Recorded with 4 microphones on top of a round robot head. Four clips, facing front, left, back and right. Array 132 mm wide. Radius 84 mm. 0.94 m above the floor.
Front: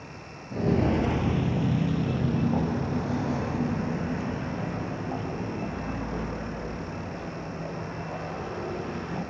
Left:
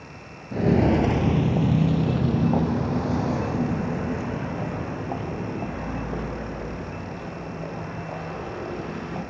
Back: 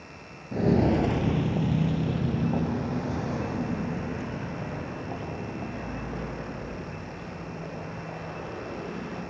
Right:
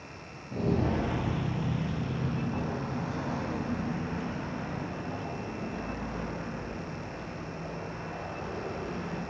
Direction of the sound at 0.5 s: 120° left.